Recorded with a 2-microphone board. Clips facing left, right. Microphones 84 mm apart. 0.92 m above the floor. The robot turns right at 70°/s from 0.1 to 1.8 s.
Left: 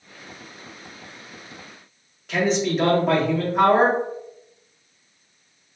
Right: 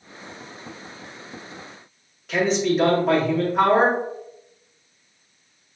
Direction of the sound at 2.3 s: Centre (ahead or behind).